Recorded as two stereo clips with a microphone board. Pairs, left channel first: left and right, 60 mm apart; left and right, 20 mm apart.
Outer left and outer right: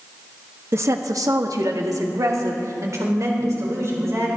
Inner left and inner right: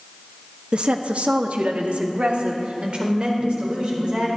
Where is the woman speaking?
45° right (ahead or behind), 1.0 m; by 4.3 s 55° right (ahead or behind), 5 m.